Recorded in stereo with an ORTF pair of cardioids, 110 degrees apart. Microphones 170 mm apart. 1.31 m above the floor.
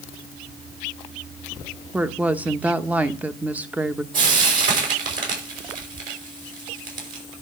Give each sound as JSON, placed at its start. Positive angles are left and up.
{"t": 1.9, "sound": "a woman speaking", "azimuth_deg": -10, "distance_m": 1.0}
{"t": 4.1, "sound": "frying", "azimuth_deg": -55, "distance_m": 5.5}